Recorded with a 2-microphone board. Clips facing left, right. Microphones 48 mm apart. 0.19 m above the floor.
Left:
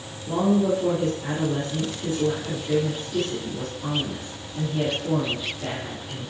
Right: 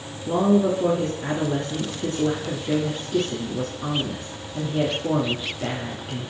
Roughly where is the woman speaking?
Right.